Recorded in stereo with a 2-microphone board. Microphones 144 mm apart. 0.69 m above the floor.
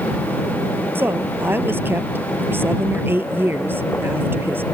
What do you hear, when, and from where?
0.9 s a woman speaking: 15° right (ahead or behind)